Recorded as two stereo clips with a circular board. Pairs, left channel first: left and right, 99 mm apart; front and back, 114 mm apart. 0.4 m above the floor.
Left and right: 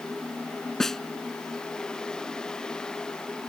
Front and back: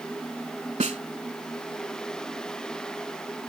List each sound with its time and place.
0.8 s a snare drum: 175° left